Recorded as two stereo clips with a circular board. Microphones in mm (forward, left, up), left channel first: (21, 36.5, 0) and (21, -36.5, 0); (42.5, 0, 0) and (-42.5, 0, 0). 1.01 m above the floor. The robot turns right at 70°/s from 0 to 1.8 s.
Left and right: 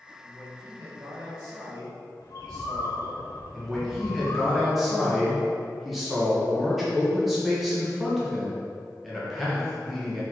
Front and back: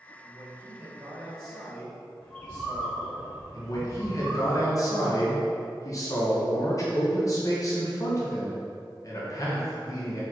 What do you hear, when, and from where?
0.2 s a man speaking: 175° left, 1.3 m; by 3.2 s 75° right, 1.3 m
2.2 s a bird: 75° left, 1.1 m
3.5 s a man speaking: 5° right, 0.8 m